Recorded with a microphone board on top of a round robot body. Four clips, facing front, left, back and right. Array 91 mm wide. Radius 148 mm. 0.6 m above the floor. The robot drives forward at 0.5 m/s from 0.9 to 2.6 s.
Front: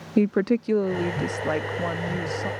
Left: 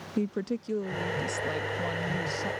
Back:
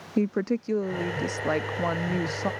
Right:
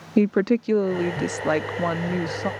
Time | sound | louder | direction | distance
0.2 | a woman speaking | right 11 dB, front 5 dB | 70° right | ?